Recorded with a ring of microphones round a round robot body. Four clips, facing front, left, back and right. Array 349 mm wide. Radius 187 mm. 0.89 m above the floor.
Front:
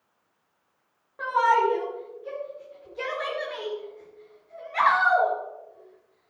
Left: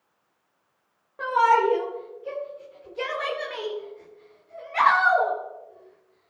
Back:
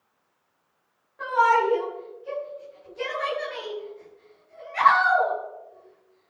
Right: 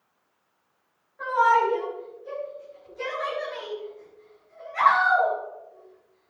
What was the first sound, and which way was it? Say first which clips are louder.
A shout: left 1 dB, back 1 dB; 65° left.